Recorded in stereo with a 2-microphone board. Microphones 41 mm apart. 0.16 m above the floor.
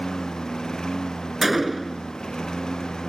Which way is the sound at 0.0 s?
15° left (ahead or behind).